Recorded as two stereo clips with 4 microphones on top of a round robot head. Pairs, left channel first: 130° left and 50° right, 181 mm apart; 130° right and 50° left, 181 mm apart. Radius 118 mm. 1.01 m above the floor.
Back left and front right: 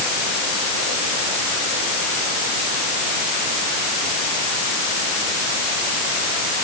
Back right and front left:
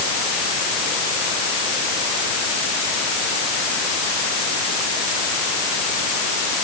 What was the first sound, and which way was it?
Only background noise.